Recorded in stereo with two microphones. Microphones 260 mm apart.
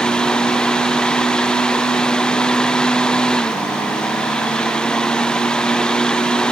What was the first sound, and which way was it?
Only background noise.